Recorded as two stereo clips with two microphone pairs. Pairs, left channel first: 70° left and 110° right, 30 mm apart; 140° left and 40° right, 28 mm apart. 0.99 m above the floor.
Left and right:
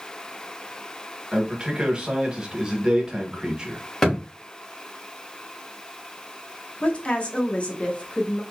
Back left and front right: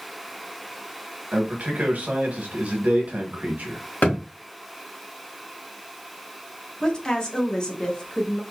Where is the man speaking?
50° right, 1.3 m.